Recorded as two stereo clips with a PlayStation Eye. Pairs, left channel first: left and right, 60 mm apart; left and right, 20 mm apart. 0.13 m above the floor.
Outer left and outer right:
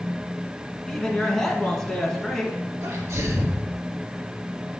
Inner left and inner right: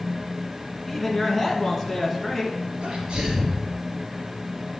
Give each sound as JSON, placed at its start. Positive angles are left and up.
{"t": 0.9, "sound": "a man speaking", "side_deg": 10, "distance_m": 1.4}
{"t": 2.8, "sound": "a sneeze", "side_deg": -55, "distance_m": 2.5}